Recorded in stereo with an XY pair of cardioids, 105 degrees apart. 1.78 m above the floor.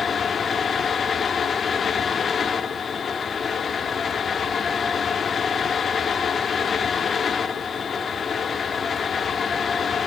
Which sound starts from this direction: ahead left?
A fan, at 0.0 s.